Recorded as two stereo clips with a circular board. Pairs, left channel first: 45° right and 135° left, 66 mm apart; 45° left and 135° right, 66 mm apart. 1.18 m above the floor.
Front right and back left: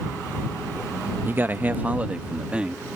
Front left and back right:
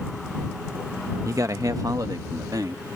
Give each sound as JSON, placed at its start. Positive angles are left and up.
{"t": 1.2, "sound": "a man speaking", "azimuth_deg": -170}